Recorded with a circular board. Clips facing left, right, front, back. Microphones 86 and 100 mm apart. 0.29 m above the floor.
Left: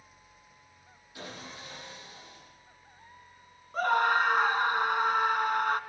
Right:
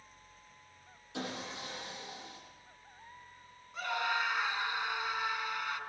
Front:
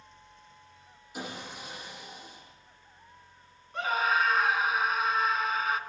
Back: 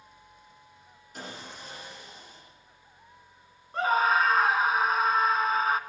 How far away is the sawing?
About 9.5 m.